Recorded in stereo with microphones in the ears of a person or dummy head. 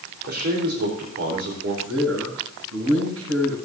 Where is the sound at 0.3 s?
55° right (ahead or behind), 4 m.